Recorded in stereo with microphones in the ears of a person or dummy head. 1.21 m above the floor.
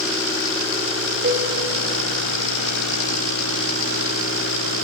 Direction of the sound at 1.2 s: 40° right (ahead or behind).